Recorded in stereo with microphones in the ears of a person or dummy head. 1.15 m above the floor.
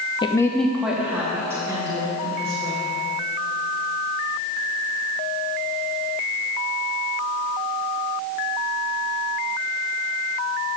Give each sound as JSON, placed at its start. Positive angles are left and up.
{"t": 0.2, "sound": "a woman speaking", "side_deg": 25, "distance_m": 0.6}